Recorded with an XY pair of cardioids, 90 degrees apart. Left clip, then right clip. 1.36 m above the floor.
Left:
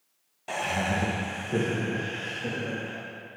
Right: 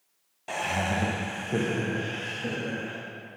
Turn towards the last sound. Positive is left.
turn(degrees=-15)